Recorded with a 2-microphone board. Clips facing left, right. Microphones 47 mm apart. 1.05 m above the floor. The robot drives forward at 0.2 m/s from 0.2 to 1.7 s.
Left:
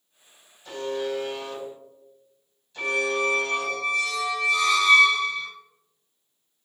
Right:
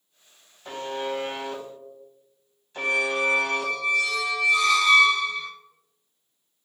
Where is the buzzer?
35° right (ahead or behind), 0.9 m; by 3.7 s 40° right (ahead or behind), 0.8 m.